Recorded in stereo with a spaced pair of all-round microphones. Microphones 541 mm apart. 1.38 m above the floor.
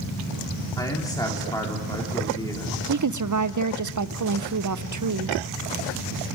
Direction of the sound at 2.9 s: 35° right (ahead or behind).